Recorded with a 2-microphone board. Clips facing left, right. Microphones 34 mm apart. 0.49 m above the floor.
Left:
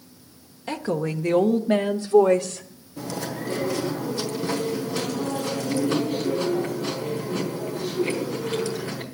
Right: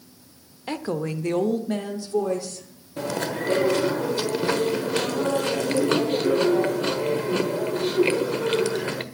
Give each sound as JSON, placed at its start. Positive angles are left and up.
{"t": 0.7, "sound": "a woman speaking", "side_deg": -10, "distance_m": 1.1}
{"t": 3.0, "sound": "chewing", "side_deg": -60, "distance_m": 1.4}